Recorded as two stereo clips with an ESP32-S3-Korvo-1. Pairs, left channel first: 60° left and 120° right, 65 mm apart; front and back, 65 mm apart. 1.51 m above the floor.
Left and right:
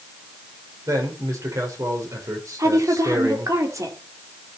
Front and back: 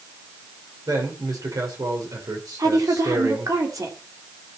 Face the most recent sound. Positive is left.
turn(degrees=-155)